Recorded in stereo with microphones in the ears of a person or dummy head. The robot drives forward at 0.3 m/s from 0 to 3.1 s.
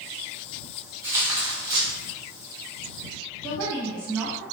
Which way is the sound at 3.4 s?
5° left (ahead or behind).